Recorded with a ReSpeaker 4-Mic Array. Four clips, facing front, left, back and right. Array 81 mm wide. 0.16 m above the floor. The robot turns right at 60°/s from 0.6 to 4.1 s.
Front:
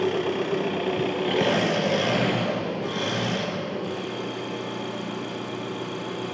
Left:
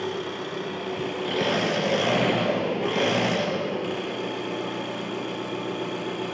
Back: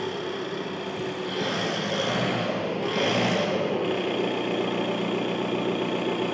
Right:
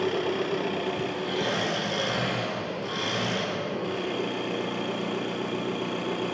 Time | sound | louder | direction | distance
0.0 | an engine running | right 4 dB, front 6 dB | 30° right | 1.5 m